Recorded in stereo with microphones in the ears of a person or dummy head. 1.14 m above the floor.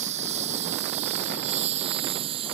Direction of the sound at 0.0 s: 35° right (ahead or behind).